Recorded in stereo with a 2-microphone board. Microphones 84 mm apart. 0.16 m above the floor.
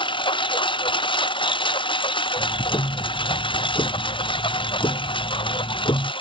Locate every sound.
0.0 s a lawn mower: 75° left (ahead or behind); by 6.2 s 80° left
2.4 s ticking: 70° left (ahead or behind)